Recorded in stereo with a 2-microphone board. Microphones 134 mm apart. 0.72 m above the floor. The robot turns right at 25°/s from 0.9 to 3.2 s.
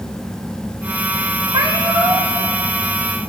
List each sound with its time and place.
1.5 s a cat meowing: 35° right (ahead or behind), 1.5 m; by 2.3 s 15° right (ahead or behind), 1.5 m